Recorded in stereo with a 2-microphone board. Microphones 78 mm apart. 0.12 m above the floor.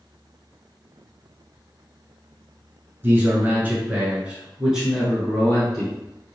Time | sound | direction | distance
3.0 | a man speaking | 30° right (ahead or behind) | 1.8 m